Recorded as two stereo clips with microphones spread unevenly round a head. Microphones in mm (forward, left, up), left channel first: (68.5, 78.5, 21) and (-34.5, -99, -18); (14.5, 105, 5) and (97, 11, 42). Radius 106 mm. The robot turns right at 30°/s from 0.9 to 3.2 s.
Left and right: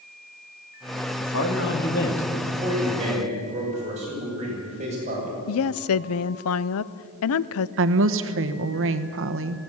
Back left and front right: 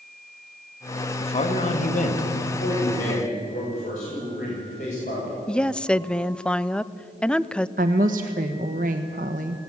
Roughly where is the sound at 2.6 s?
Behind.